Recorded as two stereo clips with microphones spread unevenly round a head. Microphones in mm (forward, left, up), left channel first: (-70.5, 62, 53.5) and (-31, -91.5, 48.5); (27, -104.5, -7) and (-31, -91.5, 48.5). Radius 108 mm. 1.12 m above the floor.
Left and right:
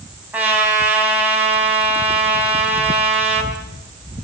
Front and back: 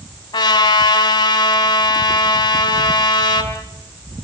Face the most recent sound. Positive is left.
turn(degrees=5)